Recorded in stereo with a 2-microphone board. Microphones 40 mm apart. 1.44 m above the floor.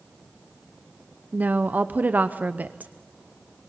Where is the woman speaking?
45° right (ahead or behind), 0.8 m.